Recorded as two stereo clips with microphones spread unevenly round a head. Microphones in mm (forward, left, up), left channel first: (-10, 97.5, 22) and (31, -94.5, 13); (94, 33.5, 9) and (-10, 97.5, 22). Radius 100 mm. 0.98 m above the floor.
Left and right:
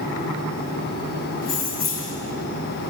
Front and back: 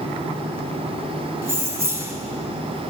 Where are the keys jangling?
80° left, 2 m.